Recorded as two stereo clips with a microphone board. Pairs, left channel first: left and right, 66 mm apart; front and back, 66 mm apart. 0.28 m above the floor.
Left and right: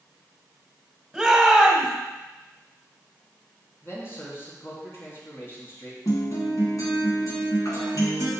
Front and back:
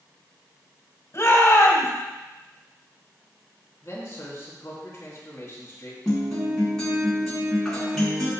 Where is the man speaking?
45° left, 3.5 m.